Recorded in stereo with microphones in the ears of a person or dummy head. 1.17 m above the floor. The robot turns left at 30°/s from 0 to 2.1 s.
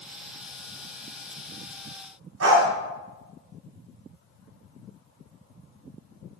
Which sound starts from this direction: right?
A dog barking, at 2.4 s.